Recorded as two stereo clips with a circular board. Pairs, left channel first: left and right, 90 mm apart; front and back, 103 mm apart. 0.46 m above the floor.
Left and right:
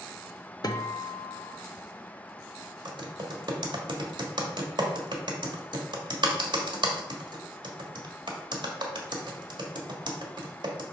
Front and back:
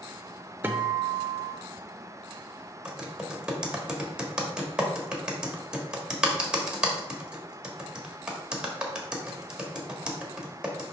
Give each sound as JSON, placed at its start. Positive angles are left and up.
{"t": 0.6, "sound": "a guitar", "azimuth_deg": 115, "distance_m": 0.7}
{"t": 2.9, "sound": "typing on a keyboard", "azimuth_deg": -100, "distance_m": 1.3}